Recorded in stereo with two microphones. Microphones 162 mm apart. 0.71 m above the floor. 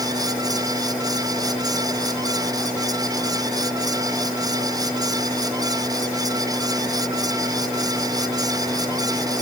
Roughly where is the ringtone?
I don't hear a ringtone.